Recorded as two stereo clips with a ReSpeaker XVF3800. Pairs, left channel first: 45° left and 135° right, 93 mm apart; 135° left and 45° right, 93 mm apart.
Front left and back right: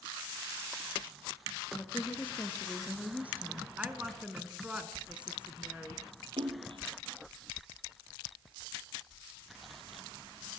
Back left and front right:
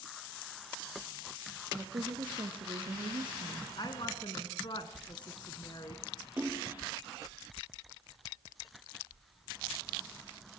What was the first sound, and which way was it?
A woman speaking, 10° right.